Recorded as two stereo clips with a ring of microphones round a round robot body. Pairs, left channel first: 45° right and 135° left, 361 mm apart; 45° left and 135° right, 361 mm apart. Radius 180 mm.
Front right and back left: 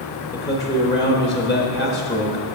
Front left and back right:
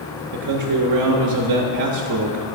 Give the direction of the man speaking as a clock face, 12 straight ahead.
4 o'clock.